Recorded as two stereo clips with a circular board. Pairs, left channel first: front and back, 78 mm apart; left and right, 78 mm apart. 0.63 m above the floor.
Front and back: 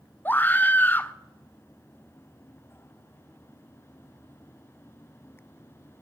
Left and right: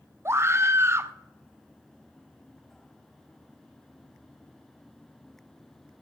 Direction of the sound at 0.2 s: 55° right.